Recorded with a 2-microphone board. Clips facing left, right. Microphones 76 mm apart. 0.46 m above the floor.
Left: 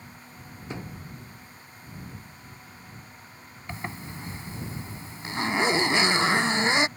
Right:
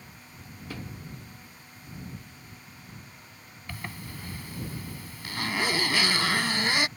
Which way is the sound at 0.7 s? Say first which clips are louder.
Left 2 dB; 20° left (ahead or behind).